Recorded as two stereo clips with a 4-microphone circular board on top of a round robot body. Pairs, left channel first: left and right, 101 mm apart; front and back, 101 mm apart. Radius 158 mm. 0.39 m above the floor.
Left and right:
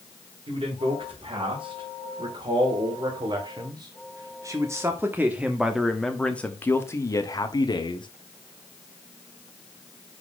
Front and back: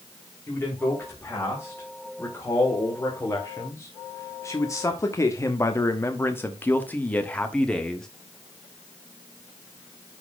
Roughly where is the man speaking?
Ahead right.